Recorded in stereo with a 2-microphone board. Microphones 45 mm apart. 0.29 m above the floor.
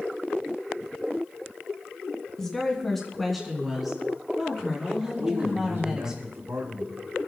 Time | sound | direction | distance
2.4 | a woman speaking | 10° left (ahead or behind) | 2.5 m
5.2 | a man speaking | 65° right (ahead or behind) | 4.5 m